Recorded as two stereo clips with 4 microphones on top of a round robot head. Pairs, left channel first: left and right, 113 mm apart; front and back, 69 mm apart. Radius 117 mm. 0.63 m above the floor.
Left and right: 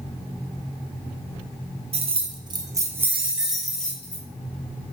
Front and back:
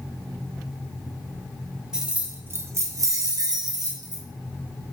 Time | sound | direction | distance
1.9 | keys jangling | 100° right | 0.8 m